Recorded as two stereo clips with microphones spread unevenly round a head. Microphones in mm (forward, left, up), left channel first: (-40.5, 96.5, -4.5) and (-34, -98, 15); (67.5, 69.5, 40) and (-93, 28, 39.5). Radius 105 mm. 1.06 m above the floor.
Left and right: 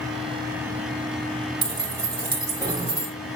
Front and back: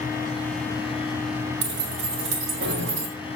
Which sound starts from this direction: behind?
Keys jangling, at 1.6 s.